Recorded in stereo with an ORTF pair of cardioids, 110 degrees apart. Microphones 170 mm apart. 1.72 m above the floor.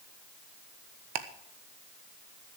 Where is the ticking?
65° right, 1.3 m.